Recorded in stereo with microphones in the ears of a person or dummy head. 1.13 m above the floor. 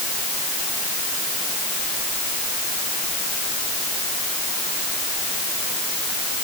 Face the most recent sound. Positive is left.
No sound to turn to.